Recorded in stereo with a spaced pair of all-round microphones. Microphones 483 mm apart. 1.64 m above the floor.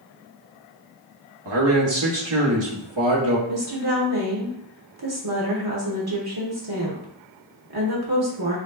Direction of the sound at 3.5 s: 50° right (ahead or behind).